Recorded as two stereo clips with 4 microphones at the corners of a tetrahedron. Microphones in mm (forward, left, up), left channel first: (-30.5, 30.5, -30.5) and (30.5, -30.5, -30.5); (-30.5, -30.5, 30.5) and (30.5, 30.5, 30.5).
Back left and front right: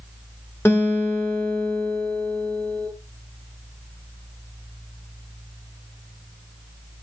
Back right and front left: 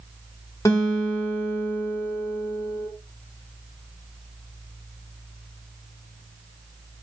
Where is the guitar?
170° right, 1.4 m.